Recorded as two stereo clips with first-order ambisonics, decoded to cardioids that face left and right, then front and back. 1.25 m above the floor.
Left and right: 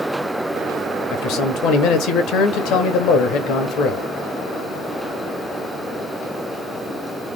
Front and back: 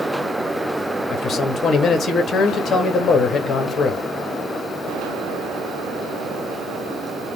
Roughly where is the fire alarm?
No fire alarm in this recording.